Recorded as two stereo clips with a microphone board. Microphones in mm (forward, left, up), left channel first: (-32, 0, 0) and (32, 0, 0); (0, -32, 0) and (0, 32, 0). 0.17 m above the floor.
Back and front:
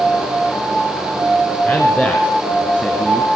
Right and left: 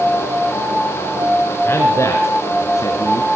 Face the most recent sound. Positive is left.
turn(degrees=-110)